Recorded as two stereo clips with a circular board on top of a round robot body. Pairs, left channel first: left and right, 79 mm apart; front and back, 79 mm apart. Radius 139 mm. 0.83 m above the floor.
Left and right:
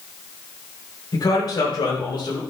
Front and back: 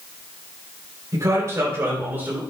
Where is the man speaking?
130° left, 3.5 m; by 2.4 s 110° left, 4 m.